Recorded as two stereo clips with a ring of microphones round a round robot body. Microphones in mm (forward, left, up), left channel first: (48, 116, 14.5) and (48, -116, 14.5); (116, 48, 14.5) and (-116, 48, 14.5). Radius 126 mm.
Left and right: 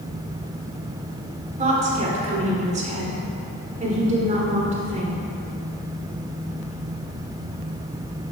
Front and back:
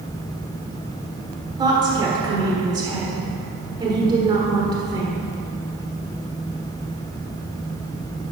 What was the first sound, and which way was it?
A woman speaking, 120° right.